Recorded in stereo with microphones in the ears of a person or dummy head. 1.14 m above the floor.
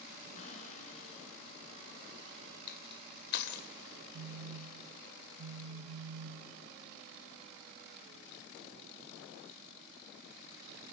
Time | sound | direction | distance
0.3 | a cupboard door | 35° left (ahead or behind) | 5 m
2.7 | crushing | 60° left (ahead or behind) | 2 m
4.1 | a phone buzzing | 70° right (ahead or behind) | 1.1 m